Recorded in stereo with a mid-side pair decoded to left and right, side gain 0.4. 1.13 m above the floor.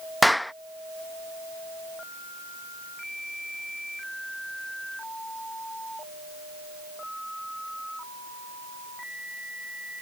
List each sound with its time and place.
0.2 s a clap: 5° left